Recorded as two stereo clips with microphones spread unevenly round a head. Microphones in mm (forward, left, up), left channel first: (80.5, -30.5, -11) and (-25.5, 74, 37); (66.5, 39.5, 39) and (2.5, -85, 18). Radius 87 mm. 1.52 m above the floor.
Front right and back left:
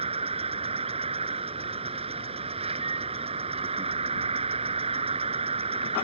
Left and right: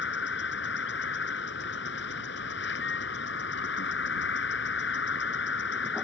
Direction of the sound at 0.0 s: 85° left.